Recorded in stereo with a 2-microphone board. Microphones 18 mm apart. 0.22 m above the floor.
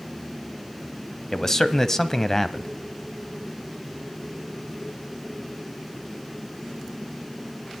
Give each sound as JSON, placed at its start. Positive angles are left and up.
{"t": 1.3, "sound": "a man speaking", "side_deg": 20, "distance_m": 1.0}